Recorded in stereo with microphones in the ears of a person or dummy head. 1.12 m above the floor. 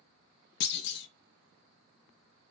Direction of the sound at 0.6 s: 60° left (ahead or behind).